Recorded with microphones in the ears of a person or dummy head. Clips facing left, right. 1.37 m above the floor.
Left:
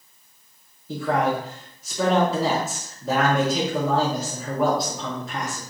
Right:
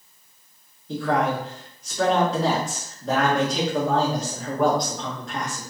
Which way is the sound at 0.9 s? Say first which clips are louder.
Even; 5° left (ahead or behind).